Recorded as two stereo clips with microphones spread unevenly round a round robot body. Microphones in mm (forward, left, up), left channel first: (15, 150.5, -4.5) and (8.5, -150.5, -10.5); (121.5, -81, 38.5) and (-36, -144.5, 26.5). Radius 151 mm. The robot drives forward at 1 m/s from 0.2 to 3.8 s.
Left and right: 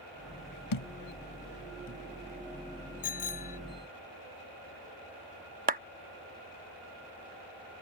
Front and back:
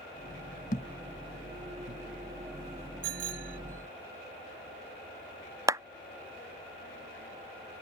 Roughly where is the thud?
Left.